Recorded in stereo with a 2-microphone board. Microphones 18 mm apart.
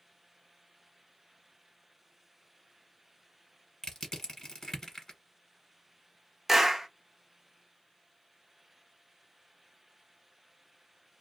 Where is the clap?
20° right (ahead or behind), 0.7 m.